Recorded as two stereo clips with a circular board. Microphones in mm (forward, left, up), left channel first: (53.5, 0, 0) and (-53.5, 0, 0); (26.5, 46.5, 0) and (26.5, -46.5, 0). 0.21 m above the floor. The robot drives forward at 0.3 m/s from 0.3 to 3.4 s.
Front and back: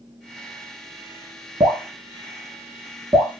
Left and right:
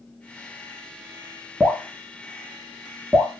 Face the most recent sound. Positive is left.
turn(degrees=180)